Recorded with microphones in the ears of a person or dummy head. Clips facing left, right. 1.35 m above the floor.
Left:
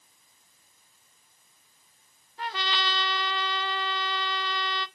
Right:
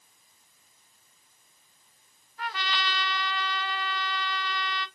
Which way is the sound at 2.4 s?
30° left (ahead or behind).